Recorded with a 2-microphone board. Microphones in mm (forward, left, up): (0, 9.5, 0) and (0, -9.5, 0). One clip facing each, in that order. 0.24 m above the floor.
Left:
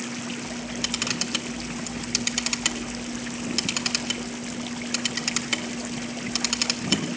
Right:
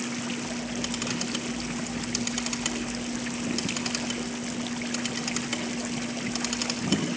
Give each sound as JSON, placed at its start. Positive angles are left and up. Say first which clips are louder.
{"t": 0.5, "sound": "a camera shutter", "louder": "left 2 dB", "side_deg": 35, "distance_m": 2.5}